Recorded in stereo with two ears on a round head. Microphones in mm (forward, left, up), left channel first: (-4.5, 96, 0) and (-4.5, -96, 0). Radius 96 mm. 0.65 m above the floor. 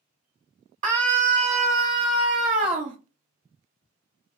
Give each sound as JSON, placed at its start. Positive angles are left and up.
{"t": 0.8, "sound": "a scream", "side_deg": -35, "distance_m": 1.5}